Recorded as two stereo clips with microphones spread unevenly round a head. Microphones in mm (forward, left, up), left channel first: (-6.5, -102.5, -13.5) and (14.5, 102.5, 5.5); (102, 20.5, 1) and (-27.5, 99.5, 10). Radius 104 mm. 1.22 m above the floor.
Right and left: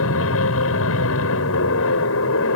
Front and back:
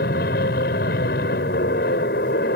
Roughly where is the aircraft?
Right.